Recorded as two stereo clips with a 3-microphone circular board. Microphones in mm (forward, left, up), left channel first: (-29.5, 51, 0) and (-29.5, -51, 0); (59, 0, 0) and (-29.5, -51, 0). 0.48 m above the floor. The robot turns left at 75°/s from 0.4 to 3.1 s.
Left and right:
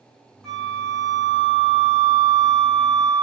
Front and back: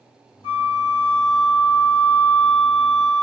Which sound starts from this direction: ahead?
A flute, at 0.4 s.